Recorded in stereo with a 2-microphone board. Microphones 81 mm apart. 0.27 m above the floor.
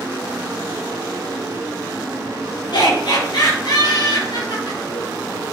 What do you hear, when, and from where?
2.7 s laughter: 65° left (ahead or behind), 4 m